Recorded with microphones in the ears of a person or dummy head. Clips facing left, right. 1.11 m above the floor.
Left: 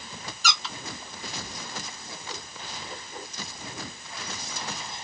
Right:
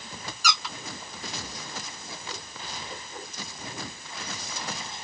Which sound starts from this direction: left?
A squeak, at 0.4 s.